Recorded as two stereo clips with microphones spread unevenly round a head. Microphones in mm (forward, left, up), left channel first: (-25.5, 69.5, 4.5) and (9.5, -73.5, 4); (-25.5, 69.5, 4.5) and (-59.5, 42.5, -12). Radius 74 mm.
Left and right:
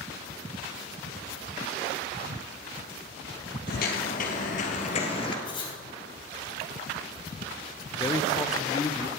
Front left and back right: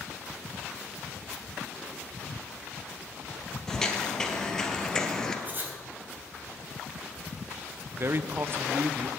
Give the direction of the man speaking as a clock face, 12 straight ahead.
6 o'clock.